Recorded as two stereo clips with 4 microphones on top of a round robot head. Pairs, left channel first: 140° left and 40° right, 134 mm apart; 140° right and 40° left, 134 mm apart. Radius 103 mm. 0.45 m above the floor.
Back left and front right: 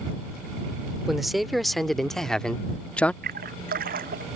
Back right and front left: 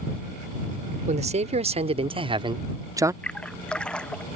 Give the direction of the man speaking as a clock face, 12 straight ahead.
10 o'clock.